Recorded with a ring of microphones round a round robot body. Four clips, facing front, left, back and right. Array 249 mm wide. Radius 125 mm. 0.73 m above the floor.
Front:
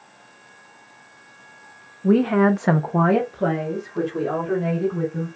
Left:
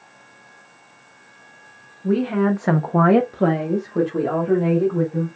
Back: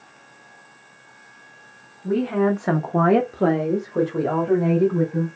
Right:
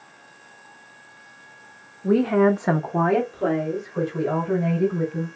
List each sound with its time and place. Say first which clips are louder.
2.0 s a woman speaking: right 2 dB, front 4 dB; 25° right, 1.1 m; by 5.3 s 135° left, 3 m